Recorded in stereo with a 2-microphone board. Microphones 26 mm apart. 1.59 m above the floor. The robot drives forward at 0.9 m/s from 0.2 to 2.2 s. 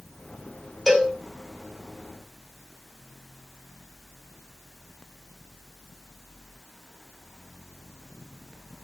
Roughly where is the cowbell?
Centre.